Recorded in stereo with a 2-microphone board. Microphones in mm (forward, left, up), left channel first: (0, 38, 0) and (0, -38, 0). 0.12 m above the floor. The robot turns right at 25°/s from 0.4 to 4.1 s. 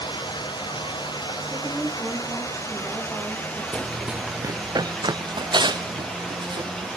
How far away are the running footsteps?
About 0.8 m.